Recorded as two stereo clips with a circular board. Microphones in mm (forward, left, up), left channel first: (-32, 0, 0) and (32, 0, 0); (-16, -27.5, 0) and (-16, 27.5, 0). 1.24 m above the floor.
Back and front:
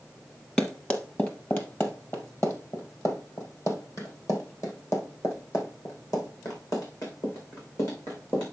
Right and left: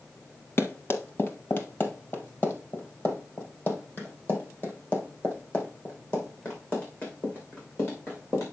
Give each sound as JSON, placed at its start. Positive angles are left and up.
{"t": 0.6, "sound": "running footsteps", "azimuth_deg": -120, "distance_m": 1.7}